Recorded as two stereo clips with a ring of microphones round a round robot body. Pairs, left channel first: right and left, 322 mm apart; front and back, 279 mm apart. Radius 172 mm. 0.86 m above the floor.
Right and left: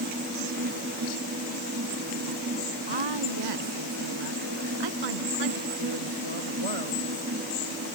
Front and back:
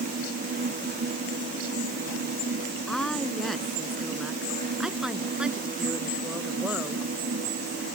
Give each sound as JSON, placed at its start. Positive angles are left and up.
{"t": 2.9, "sound": "a woman speaking", "azimuth_deg": 90}